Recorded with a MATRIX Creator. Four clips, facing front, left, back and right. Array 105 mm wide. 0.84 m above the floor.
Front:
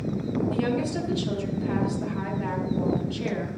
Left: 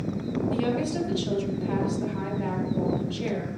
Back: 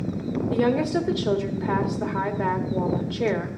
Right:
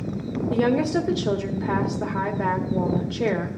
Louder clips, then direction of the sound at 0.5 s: Right 8 dB, back 9 dB; 130° right.